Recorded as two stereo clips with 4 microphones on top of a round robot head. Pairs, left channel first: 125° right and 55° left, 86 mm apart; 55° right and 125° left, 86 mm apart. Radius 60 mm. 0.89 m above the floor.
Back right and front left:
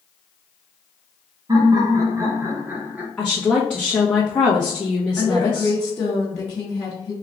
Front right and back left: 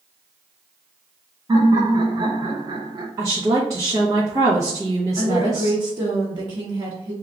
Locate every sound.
1.5 s laughter: 90° left, 1.5 m; by 3.1 s 130° left, 1.3 m
3.2 s a woman speaking: 160° left, 1.0 m
5.2 s a woman speaking: straight behind, 1.2 m